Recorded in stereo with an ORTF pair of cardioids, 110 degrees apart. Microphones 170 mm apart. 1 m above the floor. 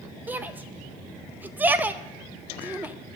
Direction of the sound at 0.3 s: 10° right.